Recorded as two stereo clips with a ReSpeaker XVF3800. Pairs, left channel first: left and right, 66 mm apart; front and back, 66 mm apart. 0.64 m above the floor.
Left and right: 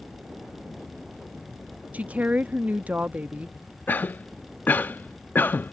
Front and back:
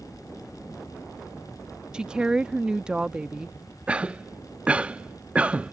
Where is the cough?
125° left.